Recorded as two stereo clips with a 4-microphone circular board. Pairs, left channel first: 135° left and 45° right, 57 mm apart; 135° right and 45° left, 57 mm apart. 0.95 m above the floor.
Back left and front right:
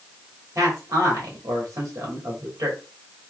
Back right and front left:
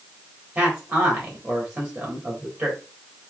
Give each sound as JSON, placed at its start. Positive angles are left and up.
{"t": 0.6, "sound": "a man speaking", "azimuth_deg": -15, "distance_m": 1.9}